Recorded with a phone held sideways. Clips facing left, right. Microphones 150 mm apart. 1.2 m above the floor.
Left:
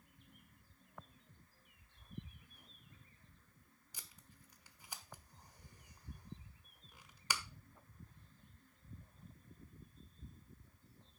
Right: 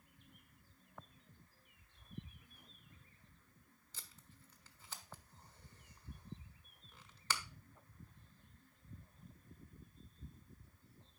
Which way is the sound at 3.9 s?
15° left (ahead or behind).